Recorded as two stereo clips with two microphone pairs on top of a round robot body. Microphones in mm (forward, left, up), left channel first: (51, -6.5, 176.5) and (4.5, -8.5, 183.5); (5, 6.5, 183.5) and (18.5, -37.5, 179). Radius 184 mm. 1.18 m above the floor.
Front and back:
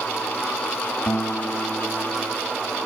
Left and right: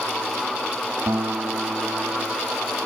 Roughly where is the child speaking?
No child speaking in this recording.